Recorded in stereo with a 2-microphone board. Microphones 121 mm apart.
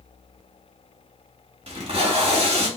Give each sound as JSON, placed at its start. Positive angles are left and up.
{"t": 1.7, "sound": "tape being pulled", "side_deg": -50, "distance_m": 0.9}